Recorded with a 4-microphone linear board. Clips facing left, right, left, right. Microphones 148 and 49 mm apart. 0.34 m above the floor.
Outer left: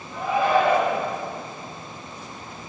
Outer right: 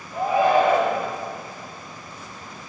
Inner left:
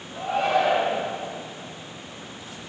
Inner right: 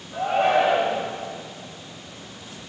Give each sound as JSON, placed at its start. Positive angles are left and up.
{"t": 0.1, "sound": "a shout", "side_deg": -50, "distance_m": 1.3}